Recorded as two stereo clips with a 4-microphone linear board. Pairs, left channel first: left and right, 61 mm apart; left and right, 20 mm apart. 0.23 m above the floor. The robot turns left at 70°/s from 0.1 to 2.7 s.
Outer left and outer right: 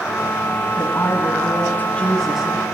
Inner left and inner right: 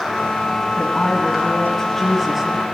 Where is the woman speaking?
105° left, 1.8 m; by 2.6 s 25° right, 1.8 m.